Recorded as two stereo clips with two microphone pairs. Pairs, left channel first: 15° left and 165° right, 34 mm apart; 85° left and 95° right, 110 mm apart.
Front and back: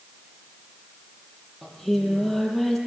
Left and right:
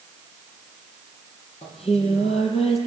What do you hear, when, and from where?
1.6 s singing: 105° left, 7 m